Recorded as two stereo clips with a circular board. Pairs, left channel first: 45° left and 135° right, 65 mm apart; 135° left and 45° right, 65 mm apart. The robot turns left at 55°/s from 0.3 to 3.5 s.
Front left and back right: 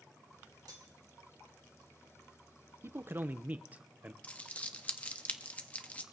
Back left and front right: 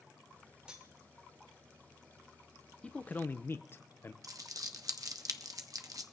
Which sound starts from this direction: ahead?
Crumpling, at 4.2 s.